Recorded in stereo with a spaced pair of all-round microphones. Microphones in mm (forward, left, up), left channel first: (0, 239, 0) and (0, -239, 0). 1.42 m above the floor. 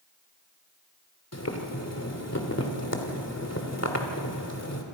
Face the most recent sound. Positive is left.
turn(degrees=30)  # may be behind; listen again after turning